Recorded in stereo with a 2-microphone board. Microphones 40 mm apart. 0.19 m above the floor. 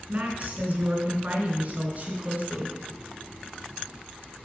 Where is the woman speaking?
45° right (ahead or behind), 2.5 m.